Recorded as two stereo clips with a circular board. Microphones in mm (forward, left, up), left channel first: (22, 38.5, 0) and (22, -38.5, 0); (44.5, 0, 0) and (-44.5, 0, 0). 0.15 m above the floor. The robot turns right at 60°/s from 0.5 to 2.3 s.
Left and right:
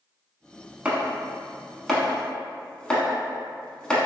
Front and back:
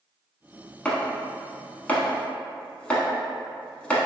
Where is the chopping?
50° right, 0.6 m; by 4.0 s 40° left, 0.6 m.